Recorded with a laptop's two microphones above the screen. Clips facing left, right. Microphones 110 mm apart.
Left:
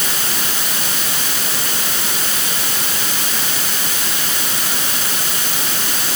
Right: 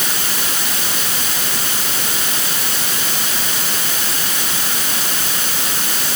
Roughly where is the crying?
No crying in this recording.